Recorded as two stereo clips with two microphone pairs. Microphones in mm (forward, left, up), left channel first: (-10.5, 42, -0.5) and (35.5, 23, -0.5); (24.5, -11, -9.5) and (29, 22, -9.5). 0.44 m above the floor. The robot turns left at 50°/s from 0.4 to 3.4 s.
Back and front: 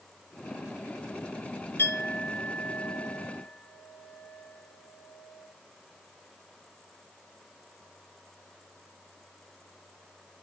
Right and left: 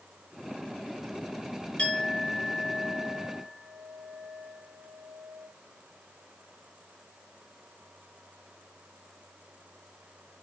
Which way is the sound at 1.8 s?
160° right.